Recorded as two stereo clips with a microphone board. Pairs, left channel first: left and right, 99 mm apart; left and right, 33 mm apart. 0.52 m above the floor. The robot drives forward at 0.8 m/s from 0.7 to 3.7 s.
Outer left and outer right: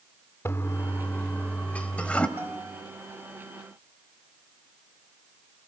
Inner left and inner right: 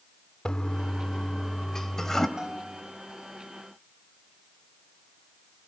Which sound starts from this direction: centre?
A bell, at 2.4 s.